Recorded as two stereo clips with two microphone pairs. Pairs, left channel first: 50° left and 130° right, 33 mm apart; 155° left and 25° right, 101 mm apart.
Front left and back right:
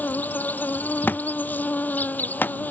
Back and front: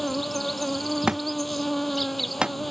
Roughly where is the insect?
Ahead left.